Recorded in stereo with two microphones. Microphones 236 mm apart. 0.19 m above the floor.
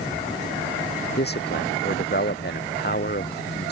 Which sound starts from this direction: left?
A man speaking, at 1.2 s.